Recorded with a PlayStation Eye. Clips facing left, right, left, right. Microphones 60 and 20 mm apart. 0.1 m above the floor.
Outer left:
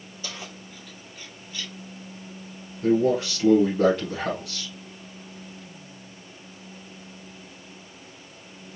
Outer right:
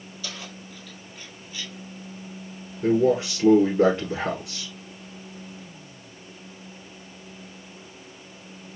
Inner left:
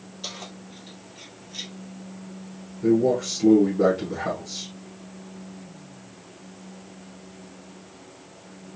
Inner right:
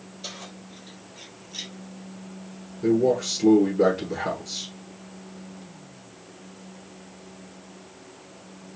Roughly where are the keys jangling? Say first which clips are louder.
Even, inner left 2 dB; left.